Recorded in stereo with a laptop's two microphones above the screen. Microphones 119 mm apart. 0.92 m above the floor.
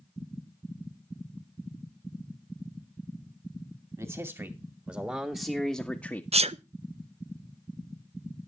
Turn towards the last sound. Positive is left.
turn(degrees=-60)  # may be behind; listen again after turning